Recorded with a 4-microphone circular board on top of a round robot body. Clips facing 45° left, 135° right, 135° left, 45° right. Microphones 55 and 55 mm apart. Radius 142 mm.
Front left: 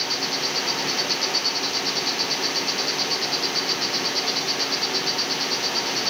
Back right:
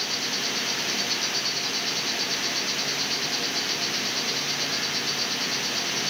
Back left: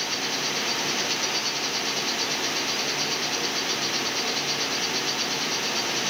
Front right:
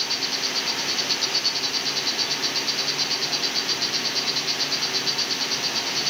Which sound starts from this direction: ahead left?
An insect, at 0.0 s.